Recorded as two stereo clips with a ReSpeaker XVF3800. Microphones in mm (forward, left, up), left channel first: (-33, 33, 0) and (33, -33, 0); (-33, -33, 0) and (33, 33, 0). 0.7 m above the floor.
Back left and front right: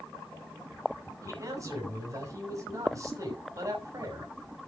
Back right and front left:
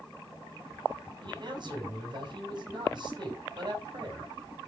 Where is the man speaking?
10° left, 6.5 m.